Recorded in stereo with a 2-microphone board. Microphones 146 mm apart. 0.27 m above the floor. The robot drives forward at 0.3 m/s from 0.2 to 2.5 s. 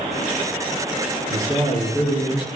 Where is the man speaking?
35° left (ahead or behind), 4 m; by 2.5 s 30° left (ahead or behind), 4 m.